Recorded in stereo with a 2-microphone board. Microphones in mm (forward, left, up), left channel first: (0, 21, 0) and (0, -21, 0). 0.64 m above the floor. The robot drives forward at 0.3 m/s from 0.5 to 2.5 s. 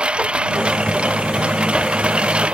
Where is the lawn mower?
25° right (ahead or behind); by 2.5 s 30° right (ahead or behind).